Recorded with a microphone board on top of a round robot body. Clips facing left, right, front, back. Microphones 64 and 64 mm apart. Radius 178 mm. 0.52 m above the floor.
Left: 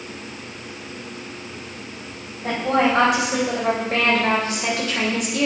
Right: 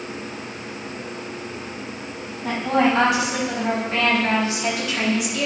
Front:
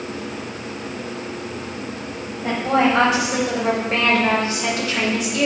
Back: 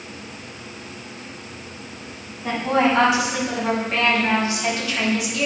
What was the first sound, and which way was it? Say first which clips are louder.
A woman speaking: even, front 1 dB; 55° left.